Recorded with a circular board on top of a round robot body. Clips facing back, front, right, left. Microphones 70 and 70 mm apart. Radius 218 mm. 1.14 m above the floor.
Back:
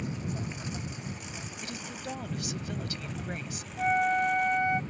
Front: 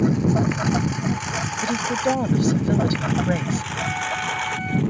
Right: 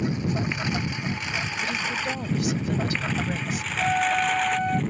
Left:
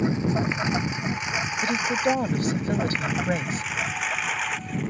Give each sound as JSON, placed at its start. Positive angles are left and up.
{"t": 0.0, "sound": "a lawn mower", "azimuth_deg": 25}
{"t": 1.6, "sound": "a woman speaking", "azimuth_deg": 40}
{"t": 3.8, "sound": "a flute", "azimuth_deg": -110}